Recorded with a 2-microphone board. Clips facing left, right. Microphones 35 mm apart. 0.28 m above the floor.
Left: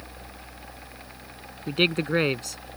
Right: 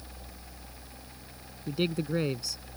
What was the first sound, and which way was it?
A man speaking, 60° left (ahead or behind).